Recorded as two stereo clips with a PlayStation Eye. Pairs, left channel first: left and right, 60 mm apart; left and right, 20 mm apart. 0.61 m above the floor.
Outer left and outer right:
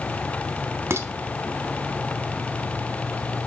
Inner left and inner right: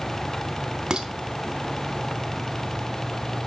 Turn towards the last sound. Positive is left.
turn(degrees=-50)  # may be behind; listen again after turning